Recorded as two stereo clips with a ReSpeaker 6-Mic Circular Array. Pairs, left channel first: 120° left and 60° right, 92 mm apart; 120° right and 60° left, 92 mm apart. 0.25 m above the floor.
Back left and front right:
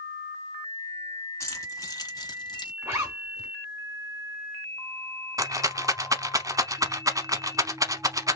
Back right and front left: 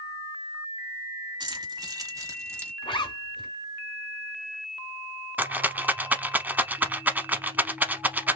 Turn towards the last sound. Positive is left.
turn(degrees=-10)